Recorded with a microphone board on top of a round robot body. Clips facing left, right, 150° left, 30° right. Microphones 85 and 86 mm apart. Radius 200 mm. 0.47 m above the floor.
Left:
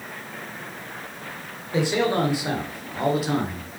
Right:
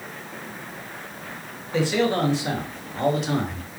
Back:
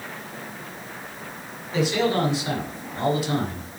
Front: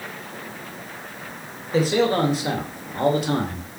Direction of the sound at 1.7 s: 15° left.